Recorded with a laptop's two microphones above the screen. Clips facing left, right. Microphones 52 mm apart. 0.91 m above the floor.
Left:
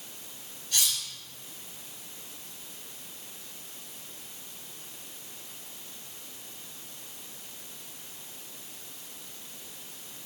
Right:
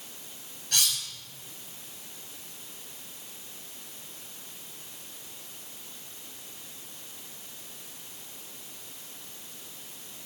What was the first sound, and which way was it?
Cutlery clinking, 70° right (ahead or behind).